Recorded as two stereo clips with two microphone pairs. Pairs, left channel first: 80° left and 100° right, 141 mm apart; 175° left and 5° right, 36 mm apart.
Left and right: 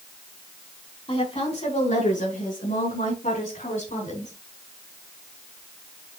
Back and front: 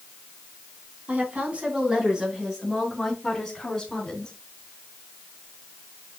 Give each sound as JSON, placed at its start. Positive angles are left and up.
{"t": 1.1, "sound": "a woman speaking", "azimuth_deg": 35, "distance_m": 3.0}